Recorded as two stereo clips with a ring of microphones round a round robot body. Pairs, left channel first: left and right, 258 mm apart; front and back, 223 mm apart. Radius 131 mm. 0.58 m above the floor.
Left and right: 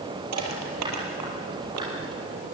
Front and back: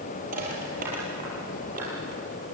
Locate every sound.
0.3 s crushing: 120° right, 5 m